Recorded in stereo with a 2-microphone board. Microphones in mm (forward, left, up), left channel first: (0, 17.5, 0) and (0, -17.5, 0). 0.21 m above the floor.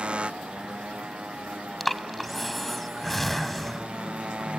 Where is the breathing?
5° left (ahead or behind).